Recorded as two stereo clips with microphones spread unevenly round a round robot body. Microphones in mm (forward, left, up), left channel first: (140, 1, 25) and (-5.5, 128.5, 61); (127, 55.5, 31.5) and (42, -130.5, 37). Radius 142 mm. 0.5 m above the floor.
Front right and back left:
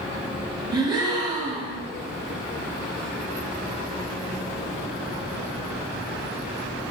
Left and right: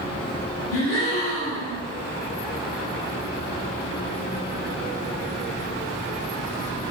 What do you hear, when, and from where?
0.7 s a gasp: 65° left, 1.5 m